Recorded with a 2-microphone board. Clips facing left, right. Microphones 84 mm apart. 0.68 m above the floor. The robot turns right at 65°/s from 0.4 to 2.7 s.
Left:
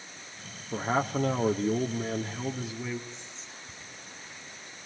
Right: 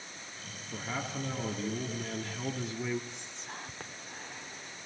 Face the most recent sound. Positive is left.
turn(degrees=-60)  # may be behind; listen again after turning